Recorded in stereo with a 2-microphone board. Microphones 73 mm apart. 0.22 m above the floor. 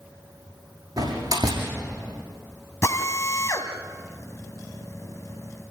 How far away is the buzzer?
I don't hear a buzzer.